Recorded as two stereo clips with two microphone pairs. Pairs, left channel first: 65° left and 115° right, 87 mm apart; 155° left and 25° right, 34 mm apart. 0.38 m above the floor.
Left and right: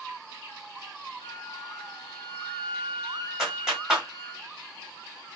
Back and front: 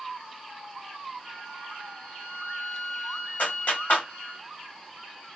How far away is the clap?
About 1.8 m.